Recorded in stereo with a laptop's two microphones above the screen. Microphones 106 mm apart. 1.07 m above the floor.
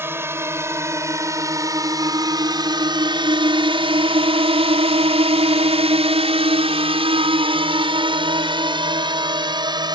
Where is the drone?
20° right (ahead or behind); by 9.9 s 40° right (ahead or behind).